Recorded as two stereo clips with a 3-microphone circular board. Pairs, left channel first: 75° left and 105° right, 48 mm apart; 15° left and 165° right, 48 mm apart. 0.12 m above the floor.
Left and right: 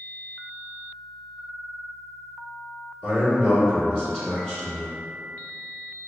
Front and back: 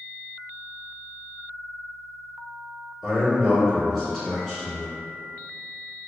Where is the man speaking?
100° left, 1.7 m.